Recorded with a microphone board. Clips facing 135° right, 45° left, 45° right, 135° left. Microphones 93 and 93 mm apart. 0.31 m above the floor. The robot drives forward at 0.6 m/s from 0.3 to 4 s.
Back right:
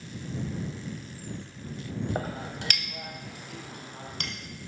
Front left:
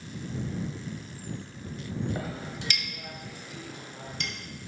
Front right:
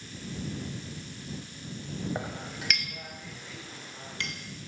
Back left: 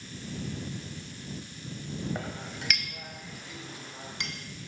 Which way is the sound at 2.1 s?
115° right.